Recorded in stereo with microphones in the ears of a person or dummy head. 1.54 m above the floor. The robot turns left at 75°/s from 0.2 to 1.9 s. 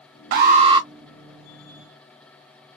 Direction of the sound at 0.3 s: 120° right.